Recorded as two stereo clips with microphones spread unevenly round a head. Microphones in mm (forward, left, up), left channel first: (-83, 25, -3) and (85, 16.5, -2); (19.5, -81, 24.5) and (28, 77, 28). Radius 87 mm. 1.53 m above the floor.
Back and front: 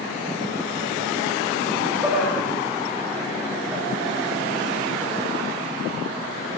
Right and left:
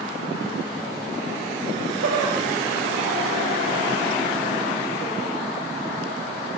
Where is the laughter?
75° left, 3 m.